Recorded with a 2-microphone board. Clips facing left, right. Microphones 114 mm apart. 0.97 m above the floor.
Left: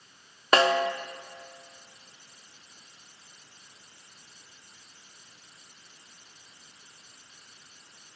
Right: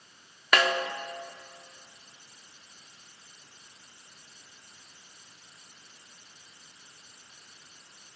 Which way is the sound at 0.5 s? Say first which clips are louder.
Left 4 dB; 30° left (ahead or behind).